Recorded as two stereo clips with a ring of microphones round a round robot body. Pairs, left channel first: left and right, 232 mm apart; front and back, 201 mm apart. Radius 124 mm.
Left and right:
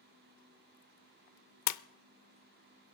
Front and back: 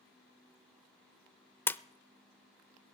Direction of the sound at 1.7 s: 80° left.